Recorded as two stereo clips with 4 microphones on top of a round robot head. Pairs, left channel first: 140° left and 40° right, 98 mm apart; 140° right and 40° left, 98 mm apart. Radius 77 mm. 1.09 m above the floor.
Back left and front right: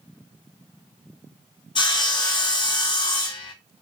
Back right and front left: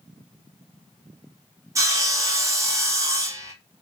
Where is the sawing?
100° left, 1.8 m.